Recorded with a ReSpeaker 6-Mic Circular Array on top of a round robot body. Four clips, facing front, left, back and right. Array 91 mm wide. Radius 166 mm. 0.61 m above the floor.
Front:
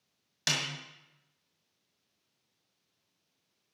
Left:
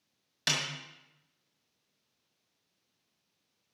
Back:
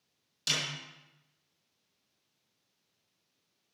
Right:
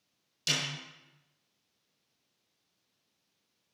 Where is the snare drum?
50° left, 2.5 m.